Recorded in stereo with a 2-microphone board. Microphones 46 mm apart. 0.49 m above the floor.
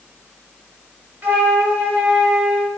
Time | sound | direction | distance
1.2 | a flute | 55° right (ahead or behind) | 1.8 m